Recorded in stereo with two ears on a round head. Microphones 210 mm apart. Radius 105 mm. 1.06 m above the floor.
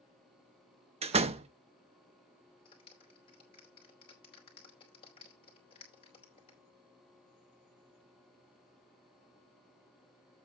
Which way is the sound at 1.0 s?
25° right (ahead or behind).